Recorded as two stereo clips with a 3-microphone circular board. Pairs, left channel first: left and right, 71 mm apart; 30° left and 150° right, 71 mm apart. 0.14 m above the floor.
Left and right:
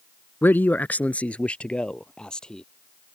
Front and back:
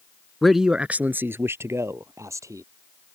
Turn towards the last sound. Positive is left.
turn(degrees=170)